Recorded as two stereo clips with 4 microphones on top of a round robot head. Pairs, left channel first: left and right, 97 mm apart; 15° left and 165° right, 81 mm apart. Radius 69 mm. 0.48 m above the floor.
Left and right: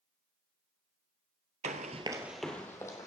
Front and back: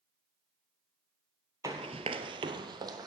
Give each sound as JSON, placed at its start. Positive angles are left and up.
{"t": 1.6, "sound": "running footsteps", "azimuth_deg": -100, "distance_m": 0.8}